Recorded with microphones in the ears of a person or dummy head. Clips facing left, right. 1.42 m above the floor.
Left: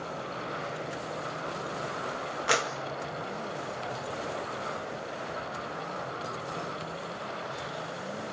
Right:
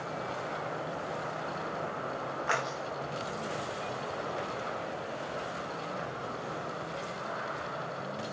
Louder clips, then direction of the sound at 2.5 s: Left 5 dB; 40° left (ahead or behind).